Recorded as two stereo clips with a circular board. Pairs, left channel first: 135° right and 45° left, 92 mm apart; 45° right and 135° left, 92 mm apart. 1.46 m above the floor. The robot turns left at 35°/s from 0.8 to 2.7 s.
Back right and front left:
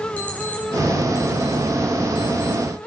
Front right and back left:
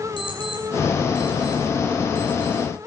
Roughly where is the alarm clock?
Ahead right.